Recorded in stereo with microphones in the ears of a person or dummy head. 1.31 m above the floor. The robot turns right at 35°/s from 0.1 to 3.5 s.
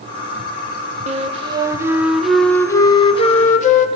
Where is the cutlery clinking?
No cutlery clinking in this recording.